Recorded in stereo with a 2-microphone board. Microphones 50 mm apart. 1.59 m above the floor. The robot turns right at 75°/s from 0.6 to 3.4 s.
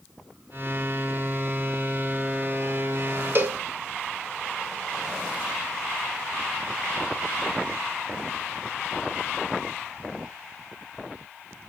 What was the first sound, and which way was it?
A cowbell, 45° right (ahead or behind).